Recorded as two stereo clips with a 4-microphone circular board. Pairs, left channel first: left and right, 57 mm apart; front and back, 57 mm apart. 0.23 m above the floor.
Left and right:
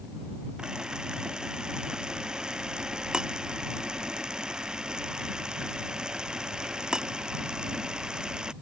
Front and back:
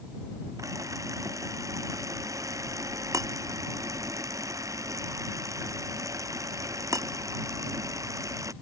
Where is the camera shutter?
165° right.